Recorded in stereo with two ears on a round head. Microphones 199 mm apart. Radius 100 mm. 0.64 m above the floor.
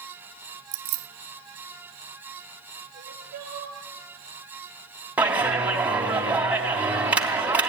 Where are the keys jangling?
70° right (ahead or behind), 1.0 m.